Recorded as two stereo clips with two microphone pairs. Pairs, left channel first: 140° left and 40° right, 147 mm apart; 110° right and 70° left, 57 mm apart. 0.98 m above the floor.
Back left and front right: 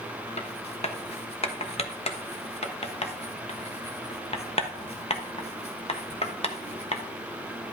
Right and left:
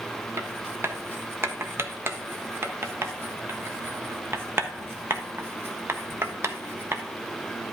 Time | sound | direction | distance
0.4 | writing | 105° left | 1.1 m